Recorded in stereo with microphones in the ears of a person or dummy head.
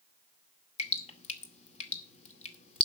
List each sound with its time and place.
0.8 s dripping: 40° left (ahead or behind), 2 m